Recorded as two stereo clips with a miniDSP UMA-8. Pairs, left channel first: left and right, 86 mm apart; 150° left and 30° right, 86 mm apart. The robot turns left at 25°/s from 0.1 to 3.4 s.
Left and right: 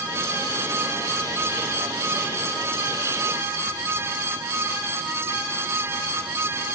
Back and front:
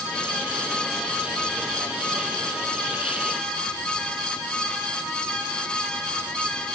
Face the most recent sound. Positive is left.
No sound to turn to.